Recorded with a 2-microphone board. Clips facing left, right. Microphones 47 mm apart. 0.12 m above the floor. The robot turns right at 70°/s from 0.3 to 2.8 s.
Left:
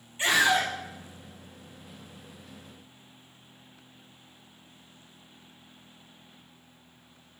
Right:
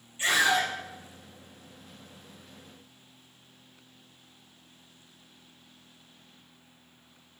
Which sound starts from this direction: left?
A scream, at 0.2 s.